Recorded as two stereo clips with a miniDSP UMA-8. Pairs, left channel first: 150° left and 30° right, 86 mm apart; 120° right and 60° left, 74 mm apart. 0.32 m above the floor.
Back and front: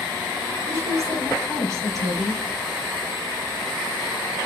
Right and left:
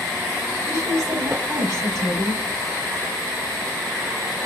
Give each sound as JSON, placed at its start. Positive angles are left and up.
{"t": 0.7, "sound": "a woman speaking", "azimuth_deg": 15, "distance_m": 2.5}